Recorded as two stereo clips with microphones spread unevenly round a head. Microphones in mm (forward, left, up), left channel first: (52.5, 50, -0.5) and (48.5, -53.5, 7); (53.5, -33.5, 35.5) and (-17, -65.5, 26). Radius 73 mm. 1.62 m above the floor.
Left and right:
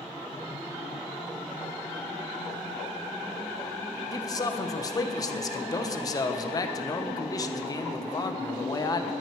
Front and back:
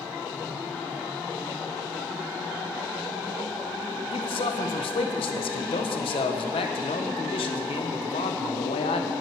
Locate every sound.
4.1 s a man speaking: 30° left, 1.2 m